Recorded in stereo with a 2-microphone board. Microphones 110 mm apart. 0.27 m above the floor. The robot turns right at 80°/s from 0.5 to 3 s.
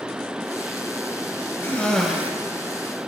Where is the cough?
150° left, 1.4 m; by 2.3 s 160° right, 1.4 m.